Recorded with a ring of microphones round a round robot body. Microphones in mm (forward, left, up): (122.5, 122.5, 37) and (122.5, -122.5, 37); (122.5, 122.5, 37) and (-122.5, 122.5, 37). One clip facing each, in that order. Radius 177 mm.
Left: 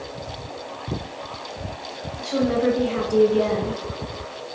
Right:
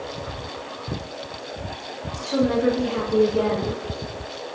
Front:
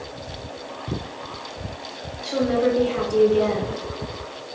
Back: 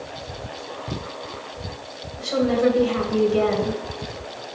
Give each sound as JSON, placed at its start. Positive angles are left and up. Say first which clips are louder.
{"t": 2.2, "sound": "a woman speaking", "louder": "right 1 dB, back 1 dB", "azimuth_deg": 155, "distance_m": 2.0}